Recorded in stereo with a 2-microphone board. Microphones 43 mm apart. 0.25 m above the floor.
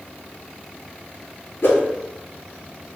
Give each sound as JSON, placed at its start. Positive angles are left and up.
{"t": 1.6, "sound": "a whoosh", "side_deg": 80, "distance_m": 1.0}